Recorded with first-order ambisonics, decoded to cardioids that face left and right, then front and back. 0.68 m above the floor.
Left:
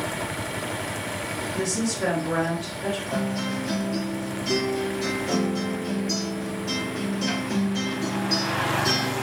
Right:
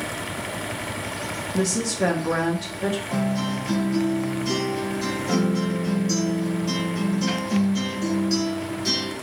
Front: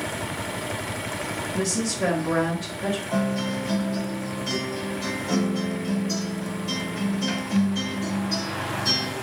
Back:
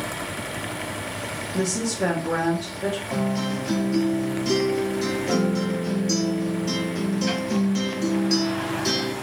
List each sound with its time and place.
1.5 s a woman speaking: 105° right, 0.8 m
3.1 s a guitar: 170° right, 1.5 m